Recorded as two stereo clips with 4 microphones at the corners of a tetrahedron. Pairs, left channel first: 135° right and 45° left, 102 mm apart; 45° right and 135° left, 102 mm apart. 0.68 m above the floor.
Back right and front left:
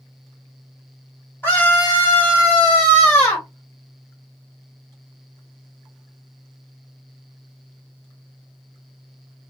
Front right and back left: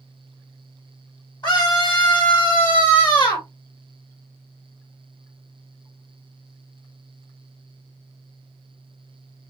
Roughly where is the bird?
No bird in this recording.